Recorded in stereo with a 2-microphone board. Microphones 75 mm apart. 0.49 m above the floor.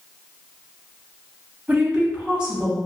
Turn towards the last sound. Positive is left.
turn(degrees=-15)  # may be behind; listen again after turning